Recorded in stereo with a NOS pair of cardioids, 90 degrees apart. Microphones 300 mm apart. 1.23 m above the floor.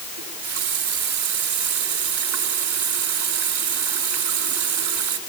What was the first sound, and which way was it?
A running tap, 65° right.